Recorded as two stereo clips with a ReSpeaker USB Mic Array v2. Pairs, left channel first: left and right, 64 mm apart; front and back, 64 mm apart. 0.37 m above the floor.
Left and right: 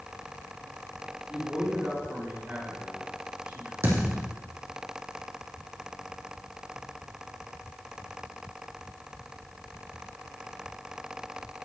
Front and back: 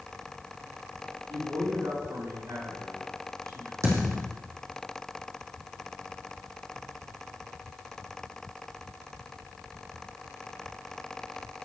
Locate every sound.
1.3 s a man speaking: 160° right, 6 m
3.8 s a thud: 140° right, 4 m